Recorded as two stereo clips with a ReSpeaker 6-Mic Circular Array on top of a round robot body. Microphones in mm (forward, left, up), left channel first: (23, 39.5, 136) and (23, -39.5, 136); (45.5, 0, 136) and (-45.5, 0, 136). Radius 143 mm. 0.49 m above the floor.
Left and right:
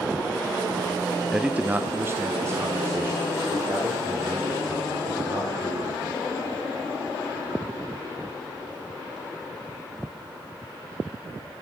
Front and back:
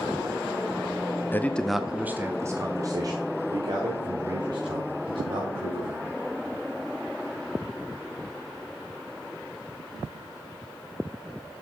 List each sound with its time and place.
1.3 s a man speaking: 15° right, 0.7 m; by 6.1 s 145° right, 3 m